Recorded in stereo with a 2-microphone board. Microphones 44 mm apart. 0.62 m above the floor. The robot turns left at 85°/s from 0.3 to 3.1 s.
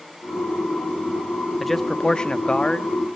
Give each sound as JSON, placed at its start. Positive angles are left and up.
{"t": 1.6, "sound": "a man speaking", "side_deg": 0, "distance_m": 0.9}